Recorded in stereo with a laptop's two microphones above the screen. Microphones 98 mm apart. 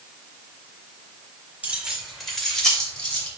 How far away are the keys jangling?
About 2.0 m.